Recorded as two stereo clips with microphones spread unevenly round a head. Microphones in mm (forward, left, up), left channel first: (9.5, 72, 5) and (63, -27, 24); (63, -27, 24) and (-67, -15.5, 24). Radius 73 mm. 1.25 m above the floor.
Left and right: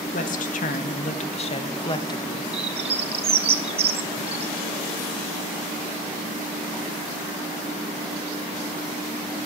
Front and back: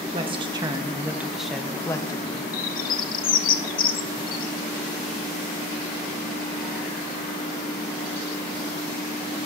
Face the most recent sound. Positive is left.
turn(degrees=-25)